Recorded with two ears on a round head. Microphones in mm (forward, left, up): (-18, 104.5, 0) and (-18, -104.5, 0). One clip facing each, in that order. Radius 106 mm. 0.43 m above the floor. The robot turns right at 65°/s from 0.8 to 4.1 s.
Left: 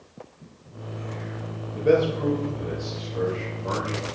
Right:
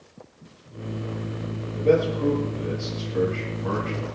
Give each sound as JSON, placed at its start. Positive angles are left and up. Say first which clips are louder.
{"t": 1.7, "sound": "a man speaking", "louder": "even", "azimuth_deg": 155, "distance_m": 9.0}